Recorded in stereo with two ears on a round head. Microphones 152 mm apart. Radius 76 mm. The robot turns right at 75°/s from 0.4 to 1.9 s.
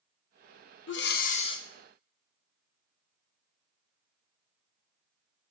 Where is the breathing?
100° left, 0.5 m; by 1.7 s 160° left, 0.5 m.